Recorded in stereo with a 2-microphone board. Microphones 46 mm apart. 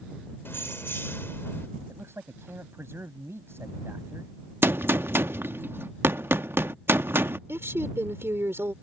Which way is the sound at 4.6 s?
65° right (ahead or behind).